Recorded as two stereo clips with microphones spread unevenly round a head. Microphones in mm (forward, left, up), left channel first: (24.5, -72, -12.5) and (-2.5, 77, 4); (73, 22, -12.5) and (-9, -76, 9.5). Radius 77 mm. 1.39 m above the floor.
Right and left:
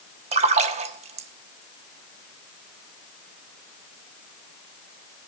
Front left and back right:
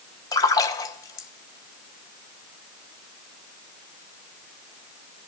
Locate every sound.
0.3 s a splash: 120° left, 1.1 m